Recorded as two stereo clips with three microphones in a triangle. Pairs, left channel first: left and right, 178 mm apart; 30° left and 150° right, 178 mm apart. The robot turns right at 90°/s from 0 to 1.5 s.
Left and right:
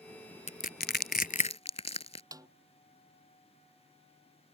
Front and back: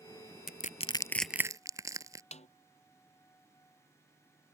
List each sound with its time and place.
0.5 s crushing: 50° left; by 2.2 s 140° left
2.3 s a snare drum: 20° right